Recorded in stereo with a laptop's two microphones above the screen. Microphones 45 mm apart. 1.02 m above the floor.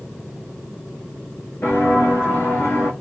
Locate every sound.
1.6 s footsteps: 50° left (ahead or behind), 4 m; by 2.9 s 65° left (ahead or behind), 4 m